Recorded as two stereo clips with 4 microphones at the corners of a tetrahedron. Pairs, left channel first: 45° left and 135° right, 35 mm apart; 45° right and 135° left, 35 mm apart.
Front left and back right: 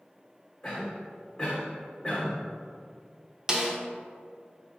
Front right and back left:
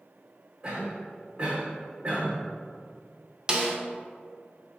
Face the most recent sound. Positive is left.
turn(degrees=170)